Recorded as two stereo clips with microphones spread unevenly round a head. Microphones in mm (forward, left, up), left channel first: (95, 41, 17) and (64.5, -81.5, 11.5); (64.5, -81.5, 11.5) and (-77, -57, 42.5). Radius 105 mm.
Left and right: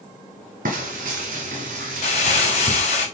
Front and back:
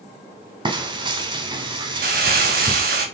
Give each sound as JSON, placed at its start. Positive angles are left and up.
{"t": 0.7, "sound": "frying", "azimuth_deg": -140, "distance_m": 2.5}
{"t": 2.0, "sound": "crumpling", "azimuth_deg": 130, "distance_m": 2.0}